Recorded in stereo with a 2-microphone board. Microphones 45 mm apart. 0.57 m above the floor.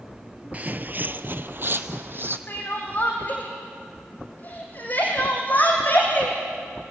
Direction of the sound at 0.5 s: 35° right (ahead or behind).